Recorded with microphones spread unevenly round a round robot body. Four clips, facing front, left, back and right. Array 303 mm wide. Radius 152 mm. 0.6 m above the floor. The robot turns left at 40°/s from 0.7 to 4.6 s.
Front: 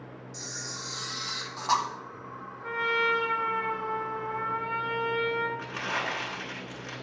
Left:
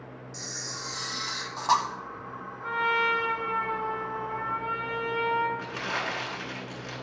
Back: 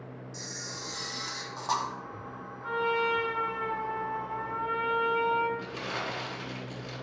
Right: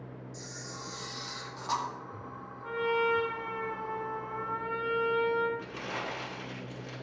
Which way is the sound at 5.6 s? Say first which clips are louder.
Left 5 dB, front 3 dB; 50° left.